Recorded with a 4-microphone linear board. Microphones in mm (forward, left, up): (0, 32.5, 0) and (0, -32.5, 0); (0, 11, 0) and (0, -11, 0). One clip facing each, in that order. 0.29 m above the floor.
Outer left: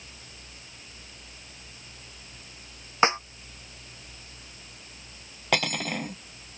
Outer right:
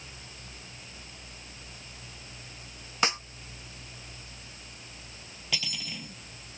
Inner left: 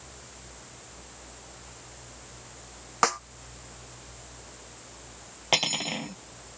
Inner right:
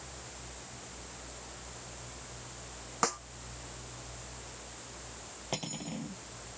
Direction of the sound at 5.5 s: 55° left (ahead or behind).